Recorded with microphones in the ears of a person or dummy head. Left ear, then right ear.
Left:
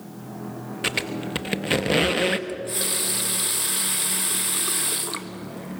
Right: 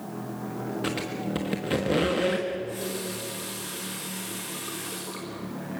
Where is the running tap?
60° left (ahead or behind), 1.4 m.